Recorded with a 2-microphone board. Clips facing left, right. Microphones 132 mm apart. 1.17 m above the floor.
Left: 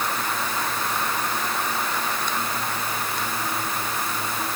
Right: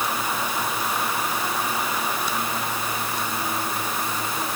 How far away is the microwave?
No microwave in this recording.